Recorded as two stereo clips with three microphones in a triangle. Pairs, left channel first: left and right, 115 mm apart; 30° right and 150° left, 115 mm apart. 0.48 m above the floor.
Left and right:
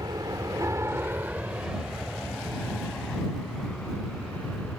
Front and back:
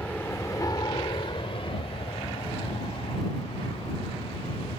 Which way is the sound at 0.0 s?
100° right.